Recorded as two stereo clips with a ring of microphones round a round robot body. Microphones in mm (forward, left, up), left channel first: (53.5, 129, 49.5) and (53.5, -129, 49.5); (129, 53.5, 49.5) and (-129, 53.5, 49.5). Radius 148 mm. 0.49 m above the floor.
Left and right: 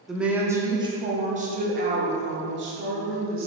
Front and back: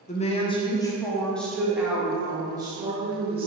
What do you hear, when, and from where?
0.1 s a woman speaking: straight ahead, 1.1 m; by 3.5 s 115° right, 1.8 m